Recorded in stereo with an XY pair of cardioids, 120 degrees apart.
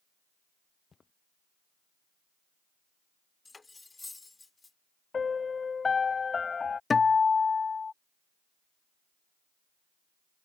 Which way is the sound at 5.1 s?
30° left.